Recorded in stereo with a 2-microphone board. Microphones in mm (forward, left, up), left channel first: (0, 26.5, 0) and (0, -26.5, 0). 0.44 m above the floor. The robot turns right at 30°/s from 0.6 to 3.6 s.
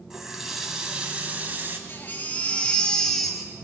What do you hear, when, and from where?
0.1 s a running tap: 170° right, 1.8 m; by 1.8 s 135° right, 1.8 m
1.9 s a baby crying: 140° left, 2 m; by 3.5 s 170° right, 2 m